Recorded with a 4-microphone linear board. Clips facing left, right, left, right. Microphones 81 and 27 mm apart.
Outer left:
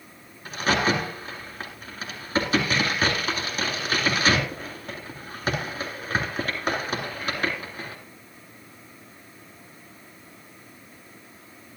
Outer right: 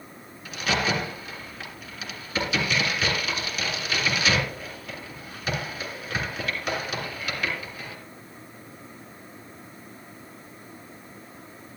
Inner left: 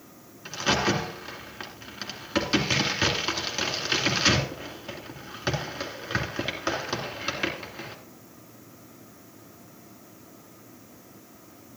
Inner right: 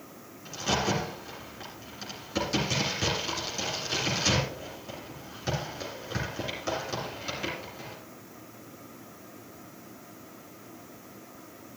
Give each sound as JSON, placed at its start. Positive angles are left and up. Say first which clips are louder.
{"t": 0.5, "sound": "a crack", "louder": "outer left 3 dB, inner left 4 dB", "side_deg": 40, "distance_m": 2.5}